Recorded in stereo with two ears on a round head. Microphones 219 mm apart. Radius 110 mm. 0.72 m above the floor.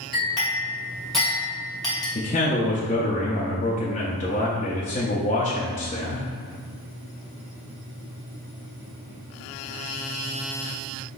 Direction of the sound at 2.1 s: 30° left (ahead or behind).